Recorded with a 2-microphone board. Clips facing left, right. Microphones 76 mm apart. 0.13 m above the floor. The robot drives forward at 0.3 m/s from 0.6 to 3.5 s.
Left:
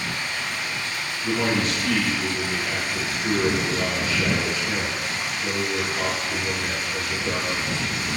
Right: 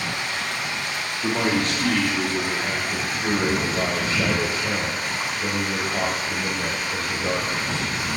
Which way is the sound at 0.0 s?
65° right (ahead or behind).